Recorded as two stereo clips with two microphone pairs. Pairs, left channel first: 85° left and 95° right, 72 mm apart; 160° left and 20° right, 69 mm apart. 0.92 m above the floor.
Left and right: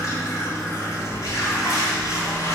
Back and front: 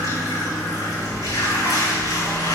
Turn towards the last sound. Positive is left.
turn(degrees=130)